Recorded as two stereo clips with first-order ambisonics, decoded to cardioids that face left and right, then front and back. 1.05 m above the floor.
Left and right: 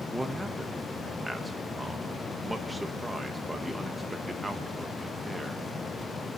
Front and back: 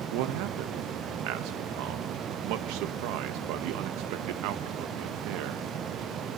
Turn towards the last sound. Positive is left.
turn(degrees=-175)